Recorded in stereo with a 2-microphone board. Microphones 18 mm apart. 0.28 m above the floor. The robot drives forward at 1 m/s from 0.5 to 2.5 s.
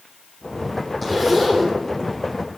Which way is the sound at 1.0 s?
10° left (ahead or behind).